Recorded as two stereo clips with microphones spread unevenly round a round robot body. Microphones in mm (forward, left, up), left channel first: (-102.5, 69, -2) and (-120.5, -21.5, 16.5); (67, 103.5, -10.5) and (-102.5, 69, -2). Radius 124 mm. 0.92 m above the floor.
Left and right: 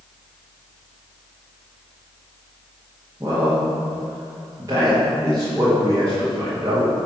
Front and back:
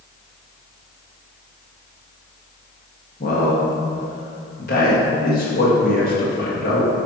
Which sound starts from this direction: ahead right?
A man speaking, at 3.2 s.